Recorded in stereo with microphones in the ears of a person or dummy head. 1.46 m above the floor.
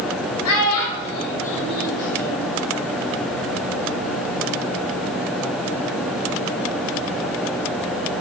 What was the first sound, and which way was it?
A child speaking, 75° left (ahead or behind).